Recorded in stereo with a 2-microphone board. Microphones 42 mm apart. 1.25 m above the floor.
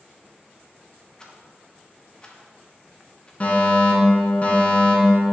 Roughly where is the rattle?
Left.